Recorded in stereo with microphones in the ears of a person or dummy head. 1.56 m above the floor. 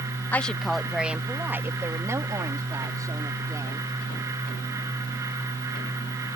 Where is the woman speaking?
10° left (ahead or behind); by 3.9 s 20° right (ahead or behind).